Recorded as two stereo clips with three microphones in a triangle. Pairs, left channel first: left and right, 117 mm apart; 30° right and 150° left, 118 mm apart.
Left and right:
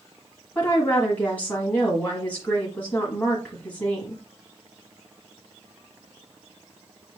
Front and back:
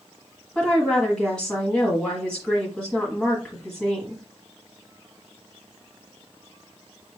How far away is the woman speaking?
About 1.3 m.